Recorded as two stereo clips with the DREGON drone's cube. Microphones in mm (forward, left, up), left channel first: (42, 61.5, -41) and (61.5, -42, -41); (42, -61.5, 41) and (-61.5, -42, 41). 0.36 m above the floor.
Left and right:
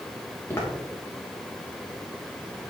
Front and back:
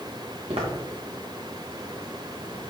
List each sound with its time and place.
0.5 s footsteps: 165° left, 3 m